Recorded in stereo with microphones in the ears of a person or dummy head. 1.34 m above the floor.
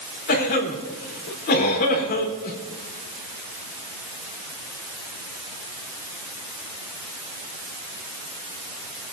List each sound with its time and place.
0.3 s a cough: 50° left (ahead or behind), 4 m